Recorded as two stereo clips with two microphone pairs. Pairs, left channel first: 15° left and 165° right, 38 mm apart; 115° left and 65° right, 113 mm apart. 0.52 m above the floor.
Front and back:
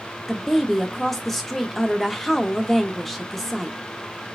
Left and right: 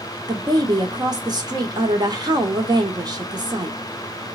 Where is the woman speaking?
70° right, 0.8 m.